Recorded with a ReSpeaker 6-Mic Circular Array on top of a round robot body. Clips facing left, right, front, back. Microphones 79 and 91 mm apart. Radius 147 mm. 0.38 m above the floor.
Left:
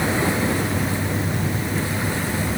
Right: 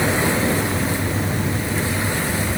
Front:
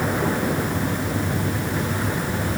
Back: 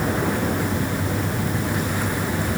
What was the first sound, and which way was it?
Only background noise.